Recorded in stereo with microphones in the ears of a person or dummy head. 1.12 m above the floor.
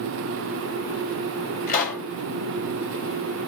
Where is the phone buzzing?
No phone buzzing in this recording.